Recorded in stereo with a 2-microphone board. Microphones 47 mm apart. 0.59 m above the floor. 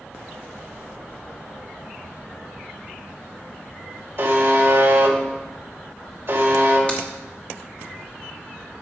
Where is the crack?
25° left (ahead or behind), 1.3 m.